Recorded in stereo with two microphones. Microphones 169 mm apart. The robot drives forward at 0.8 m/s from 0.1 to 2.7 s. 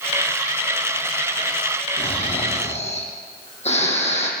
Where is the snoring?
35° left (ahead or behind), 3.5 m; by 4.3 s 40° left (ahead or behind), 3 m.